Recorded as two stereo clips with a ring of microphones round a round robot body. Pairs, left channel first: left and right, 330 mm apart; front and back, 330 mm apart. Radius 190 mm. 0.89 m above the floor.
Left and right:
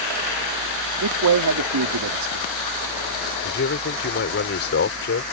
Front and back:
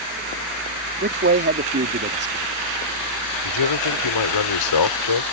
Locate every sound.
1.0 s a man speaking: 120° right
3.5 s a man speaking: 30° left